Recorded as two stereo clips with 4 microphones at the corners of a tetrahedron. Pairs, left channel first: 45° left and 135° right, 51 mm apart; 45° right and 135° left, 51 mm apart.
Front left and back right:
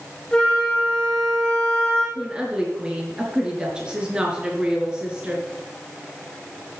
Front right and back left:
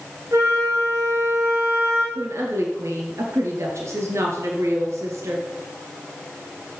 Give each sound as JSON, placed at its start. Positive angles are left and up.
{"t": 0.3, "sound": "a flute", "azimuth_deg": 120, "distance_m": 6.5}
{"t": 2.1, "sound": "a woman speaking", "azimuth_deg": 155, "distance_m": 3.0}